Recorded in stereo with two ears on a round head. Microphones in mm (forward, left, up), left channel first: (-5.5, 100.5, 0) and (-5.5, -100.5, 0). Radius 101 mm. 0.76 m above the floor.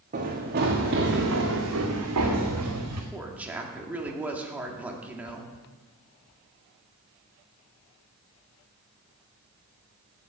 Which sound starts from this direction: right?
Running footsteps, at 0.1 s.